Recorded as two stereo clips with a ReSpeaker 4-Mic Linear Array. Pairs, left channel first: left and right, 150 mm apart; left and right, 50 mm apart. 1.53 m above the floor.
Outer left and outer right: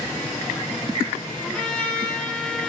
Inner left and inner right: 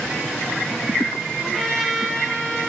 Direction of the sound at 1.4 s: 5° left (ahead or behind).